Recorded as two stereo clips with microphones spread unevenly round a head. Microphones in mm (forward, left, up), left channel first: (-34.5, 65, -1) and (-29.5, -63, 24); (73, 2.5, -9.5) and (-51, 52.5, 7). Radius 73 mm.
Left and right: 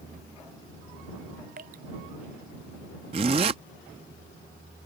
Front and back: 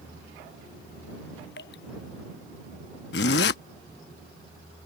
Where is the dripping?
50° right.